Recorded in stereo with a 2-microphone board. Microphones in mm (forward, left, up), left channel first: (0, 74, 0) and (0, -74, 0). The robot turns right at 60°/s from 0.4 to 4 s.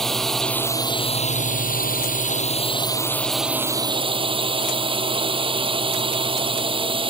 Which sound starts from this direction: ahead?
A drone, at 0.0 s.